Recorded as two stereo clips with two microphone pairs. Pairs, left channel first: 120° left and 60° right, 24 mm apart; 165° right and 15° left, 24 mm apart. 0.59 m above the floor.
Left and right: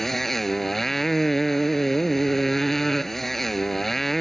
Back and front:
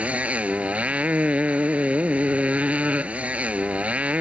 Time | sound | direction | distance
0.0 | a motorcycle | 45° left | ?